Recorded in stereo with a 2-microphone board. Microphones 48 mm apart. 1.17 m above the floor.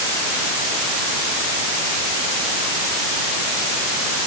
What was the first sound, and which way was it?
Only background noise.